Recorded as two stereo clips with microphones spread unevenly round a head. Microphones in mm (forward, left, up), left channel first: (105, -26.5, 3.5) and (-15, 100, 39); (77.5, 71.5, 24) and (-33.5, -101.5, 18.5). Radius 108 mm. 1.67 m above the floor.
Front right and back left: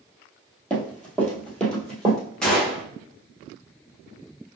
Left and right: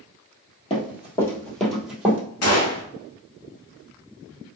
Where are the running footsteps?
55° left, 1.8 m; by 2.2 s straight behind, 1.7 m.